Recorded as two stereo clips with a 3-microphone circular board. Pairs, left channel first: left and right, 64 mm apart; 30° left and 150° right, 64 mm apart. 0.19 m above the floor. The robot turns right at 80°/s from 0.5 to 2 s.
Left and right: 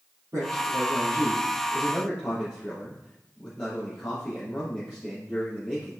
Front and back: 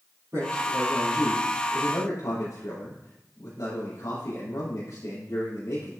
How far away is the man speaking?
About 4 m.